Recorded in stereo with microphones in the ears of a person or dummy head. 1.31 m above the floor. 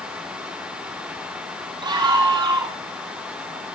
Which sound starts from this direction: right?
A scream, at 1.8 s.